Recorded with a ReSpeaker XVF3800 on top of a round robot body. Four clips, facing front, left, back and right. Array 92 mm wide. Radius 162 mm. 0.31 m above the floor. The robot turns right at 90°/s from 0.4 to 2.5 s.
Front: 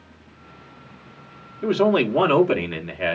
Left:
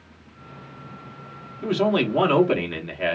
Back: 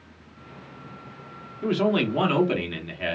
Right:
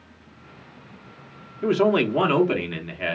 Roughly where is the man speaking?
Right.